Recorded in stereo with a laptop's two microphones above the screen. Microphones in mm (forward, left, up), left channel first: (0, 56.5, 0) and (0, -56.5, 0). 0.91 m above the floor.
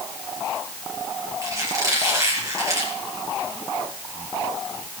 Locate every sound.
1.4 s a squeak: 30° right (ahead or behind), 6.5 m